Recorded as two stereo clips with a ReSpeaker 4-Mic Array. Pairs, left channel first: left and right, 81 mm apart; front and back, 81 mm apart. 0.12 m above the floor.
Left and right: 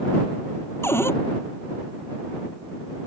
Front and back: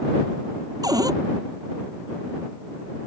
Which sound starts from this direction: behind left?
A cupboard door, at 0.8 s.